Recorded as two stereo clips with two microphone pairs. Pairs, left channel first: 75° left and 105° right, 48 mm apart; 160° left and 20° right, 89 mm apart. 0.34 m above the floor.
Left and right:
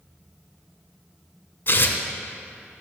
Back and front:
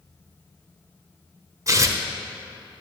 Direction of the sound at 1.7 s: 35° left.